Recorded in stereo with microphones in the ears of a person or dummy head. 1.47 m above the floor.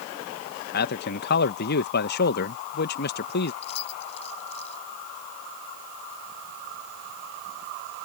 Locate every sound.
0.7 s a man speaking: 55° left (ahead or behind)
3.6 s keys jangling: 40° left (ahead or behind)